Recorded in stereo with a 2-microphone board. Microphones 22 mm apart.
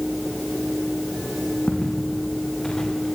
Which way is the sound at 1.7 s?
40° left (ahead or behind).